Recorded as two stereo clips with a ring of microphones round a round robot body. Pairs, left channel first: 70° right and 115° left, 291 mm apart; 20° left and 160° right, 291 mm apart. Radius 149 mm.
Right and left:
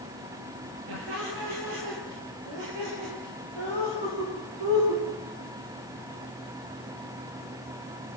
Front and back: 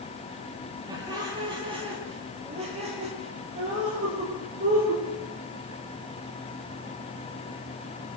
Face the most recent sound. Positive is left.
turn(degrees=140)